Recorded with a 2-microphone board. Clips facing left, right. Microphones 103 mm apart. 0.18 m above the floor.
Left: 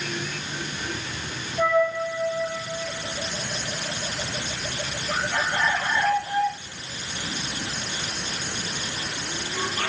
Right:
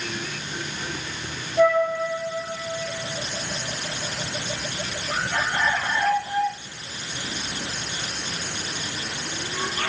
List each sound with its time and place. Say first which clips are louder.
1.6 s a flute: right 3 dB; 60° right (ahead or behind), 2.5 m